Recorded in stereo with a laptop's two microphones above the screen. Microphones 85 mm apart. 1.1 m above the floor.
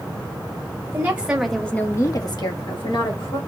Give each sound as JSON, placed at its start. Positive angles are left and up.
{"t": 0.9, "sound": "a woman speaking", "side_deg": -25, "distance_m": 1.5}